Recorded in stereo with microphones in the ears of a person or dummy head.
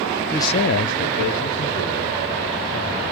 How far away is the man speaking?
About 0.5 m.